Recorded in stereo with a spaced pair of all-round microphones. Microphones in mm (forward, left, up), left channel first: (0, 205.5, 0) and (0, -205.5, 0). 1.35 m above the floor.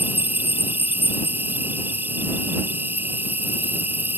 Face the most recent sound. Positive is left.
turn(degrees=-5)  # may be behind; listen again after turning